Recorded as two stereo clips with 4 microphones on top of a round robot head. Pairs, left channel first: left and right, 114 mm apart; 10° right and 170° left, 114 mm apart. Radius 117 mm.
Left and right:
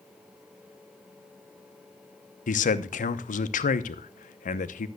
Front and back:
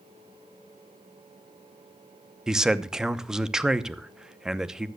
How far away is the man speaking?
About 0.9 m.